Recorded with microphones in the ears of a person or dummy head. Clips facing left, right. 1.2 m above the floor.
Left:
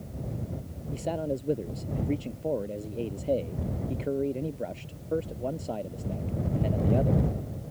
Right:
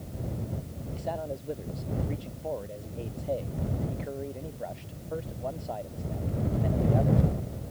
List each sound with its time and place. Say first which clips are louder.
0.9 s a man speaking: left 4 dB; 35° left (ahead or behind)